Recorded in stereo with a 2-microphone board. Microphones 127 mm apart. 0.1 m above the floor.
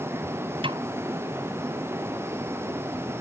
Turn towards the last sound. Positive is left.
turn(degrees=-45)  # may be behind; listen again after turning